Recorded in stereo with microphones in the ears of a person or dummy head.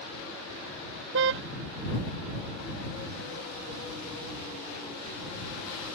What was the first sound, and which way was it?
A car horn, 70° right (ahead or behind).